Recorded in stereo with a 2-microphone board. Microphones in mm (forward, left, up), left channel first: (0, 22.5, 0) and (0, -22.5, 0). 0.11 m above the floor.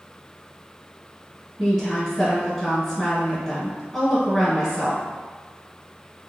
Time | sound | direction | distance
1.6 | a woman speaking | 5° left (ahead or behind) | 1.2 m